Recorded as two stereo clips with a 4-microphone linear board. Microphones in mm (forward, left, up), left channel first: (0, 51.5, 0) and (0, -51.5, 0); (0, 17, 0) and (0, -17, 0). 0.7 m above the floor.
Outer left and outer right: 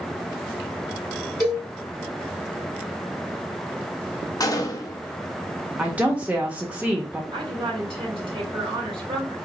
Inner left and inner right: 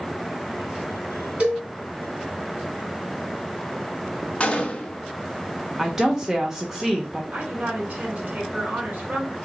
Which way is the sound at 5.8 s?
15° right (ahead or behind).